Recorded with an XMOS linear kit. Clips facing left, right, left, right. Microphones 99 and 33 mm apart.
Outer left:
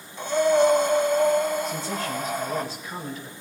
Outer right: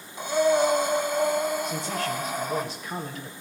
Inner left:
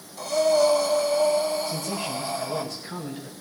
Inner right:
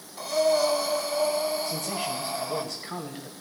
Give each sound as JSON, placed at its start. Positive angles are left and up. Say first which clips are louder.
{"t": 0.2, "sound": "breathing", "louder": "outer left 2 dB, inner left 3 dB", "side_deg": -15, "distance_m": 1.4}
{"t": 1.6, "sound": "a man speaking", "louder": "even, inner left 1 dB", "side_deg": -70, "distance_m": 5.0}